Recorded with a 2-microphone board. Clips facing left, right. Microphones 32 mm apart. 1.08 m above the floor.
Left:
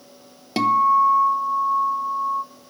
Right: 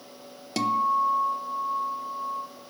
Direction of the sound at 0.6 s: 20° left (ahead or behind).